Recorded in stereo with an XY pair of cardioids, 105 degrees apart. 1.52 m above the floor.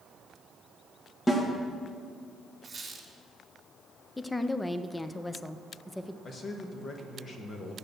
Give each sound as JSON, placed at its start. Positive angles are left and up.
{"t": 1.3, "sound": "a snare drum", "azimuth_deg": 20, "distance_m": 1.9}
{"t": 2.6, "sound": "a squeak", "azimuth_deg": -30, "distance_m": 2.5}
{"t": 4.2, "sound": "a woman speaking", "azimuth_deg": 10, "distance_m": 0.6}
{"t": 6.2, "sound": "a man speaking", "azimuth_deg": 45, "distance_m": 1.2}